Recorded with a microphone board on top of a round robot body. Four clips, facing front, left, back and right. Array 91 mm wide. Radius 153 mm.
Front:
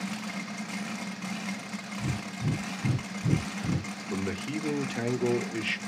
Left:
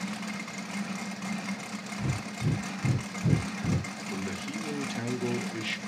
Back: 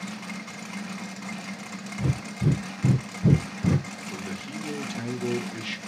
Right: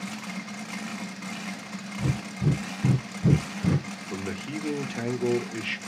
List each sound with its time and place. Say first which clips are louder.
2.0 s breathing: right 5 dB, back 7 dB; 150° right, 0.8 m
4.1 s a man speaking: right 3 dB, front 5 dB; 35° right, 1.3 m